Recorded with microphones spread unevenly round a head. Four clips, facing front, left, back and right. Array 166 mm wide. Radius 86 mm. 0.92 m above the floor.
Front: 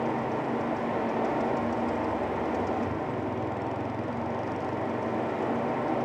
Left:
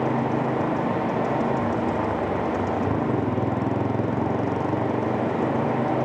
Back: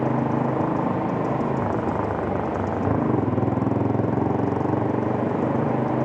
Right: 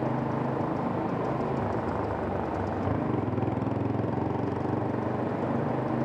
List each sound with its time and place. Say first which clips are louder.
0.0 s a motorcycle: left 6 dB, back 6 dB; 160° left